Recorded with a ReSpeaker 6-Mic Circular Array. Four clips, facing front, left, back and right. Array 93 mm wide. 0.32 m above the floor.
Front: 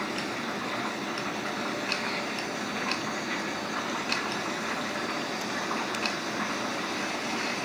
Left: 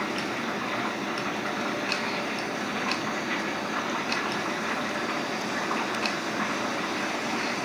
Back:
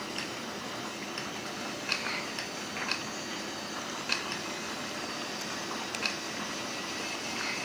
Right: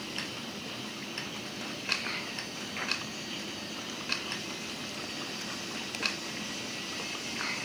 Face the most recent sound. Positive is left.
turn(degrees=70)